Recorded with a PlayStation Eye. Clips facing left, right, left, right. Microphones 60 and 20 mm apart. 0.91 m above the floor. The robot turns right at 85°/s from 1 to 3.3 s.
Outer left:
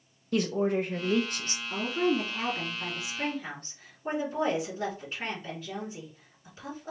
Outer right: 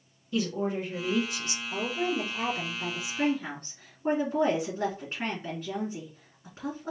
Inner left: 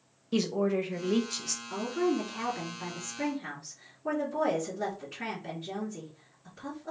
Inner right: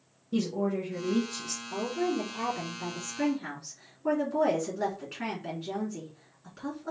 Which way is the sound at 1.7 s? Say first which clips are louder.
Outer left 3 dB, inner left 1 dB; 90° left.